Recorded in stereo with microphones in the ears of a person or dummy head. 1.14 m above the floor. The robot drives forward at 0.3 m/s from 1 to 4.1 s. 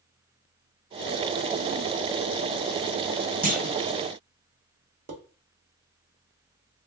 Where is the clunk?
35° right (ahead or behind), 0.6 m; by 3.8 s 30° right (ahead or behind), 0.6 m.